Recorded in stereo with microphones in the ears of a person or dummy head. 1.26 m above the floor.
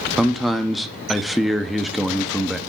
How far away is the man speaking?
About 0.6 m.